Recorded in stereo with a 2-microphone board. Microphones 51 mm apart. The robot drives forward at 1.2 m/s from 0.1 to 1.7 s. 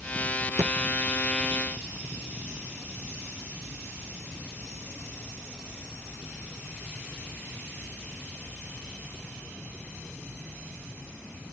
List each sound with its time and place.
0.6 s a thud: 75° right (ahead or behind); by 0.8 s 70° right (ahead or behind)